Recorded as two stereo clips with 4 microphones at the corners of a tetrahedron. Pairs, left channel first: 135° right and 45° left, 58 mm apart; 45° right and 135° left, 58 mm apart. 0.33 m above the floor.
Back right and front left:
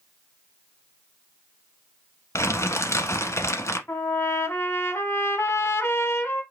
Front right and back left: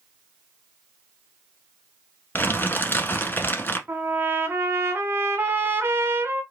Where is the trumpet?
175° right, 1.2 m.